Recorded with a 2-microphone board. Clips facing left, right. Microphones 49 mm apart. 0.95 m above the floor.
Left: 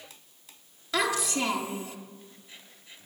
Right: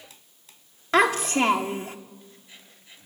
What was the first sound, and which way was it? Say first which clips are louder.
A child speaking: right 7 dB; 45° right (ahead or behind).